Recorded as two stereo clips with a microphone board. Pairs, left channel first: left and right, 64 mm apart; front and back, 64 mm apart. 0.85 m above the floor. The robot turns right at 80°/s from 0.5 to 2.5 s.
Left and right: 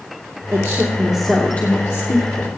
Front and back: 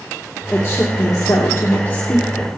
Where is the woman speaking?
55° right, 2 m; by 2.6 s 100° left, 2 m.